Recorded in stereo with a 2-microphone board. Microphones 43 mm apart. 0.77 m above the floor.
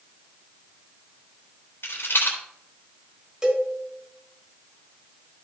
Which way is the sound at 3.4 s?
20° right (ahead or behind).